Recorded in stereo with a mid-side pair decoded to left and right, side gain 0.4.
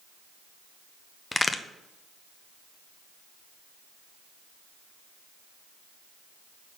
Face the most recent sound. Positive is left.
turn(degrees=25)